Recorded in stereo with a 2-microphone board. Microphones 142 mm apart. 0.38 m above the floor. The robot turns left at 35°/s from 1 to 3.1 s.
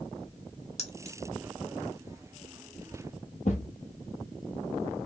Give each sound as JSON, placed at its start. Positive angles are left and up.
{"t": 0.8, "sound": "keys jangling", "side_deg": 50, "distance_m": 0.8}
{"t": 3.5, "sound": "a thud", "side_deg": 60, "distance_m": 0.9}